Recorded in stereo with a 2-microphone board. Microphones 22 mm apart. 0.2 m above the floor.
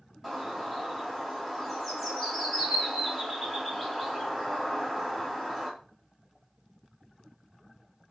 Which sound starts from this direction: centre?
A bird, at 0.2 s.